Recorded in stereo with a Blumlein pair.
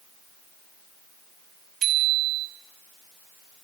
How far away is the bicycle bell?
About 5.5 m.